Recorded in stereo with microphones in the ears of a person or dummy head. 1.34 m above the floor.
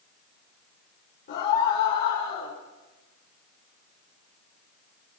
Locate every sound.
1.3 s a scream: 40° left (ahead or behind), 4 m